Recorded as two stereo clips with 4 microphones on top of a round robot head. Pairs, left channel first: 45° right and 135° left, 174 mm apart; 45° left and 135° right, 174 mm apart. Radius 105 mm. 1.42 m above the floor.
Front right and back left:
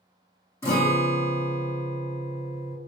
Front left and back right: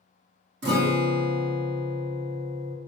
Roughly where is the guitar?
Behind right.